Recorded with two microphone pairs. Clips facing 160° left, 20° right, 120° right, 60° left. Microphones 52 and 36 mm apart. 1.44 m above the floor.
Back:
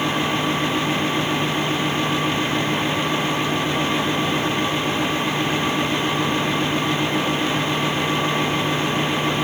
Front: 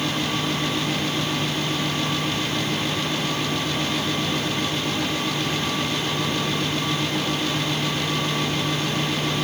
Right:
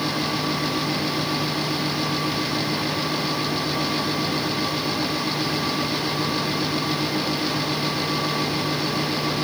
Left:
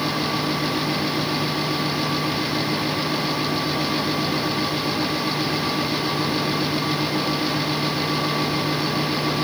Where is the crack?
No crack in this recording.